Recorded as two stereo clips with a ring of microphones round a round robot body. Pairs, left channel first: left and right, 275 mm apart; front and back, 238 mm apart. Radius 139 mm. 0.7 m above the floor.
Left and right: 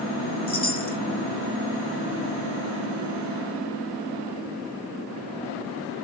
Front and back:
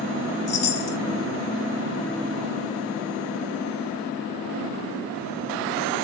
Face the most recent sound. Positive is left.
turn(degrees=25)